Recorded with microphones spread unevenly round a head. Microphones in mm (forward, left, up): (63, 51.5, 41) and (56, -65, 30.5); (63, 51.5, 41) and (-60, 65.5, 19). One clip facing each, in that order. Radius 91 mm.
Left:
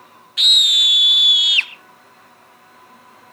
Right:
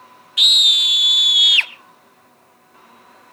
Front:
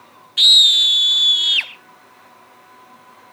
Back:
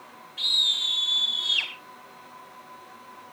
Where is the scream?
15° right, 1.3 m; by 1.7 s 60° right, 1.4 m.